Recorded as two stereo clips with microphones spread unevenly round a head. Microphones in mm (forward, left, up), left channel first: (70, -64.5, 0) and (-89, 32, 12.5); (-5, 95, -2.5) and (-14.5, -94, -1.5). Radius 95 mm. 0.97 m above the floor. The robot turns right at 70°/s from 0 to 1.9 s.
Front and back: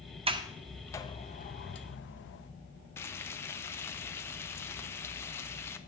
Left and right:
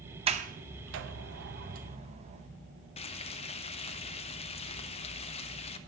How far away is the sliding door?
About 0.8 m.